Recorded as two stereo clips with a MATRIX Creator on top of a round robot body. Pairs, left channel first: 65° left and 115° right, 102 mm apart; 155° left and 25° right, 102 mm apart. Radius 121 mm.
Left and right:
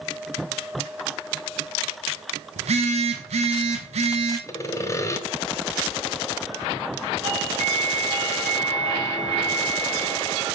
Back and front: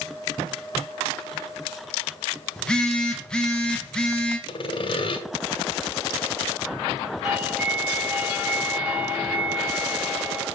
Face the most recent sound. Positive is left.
turn(degrees=-100)